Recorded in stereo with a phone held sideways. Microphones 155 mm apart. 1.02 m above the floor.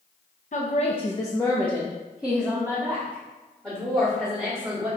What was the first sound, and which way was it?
A woman speaking, 55° left (ahead or behind).